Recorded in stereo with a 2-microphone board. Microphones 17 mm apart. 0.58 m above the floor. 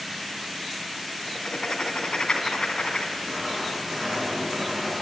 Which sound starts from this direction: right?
Writing, at 3.2 s.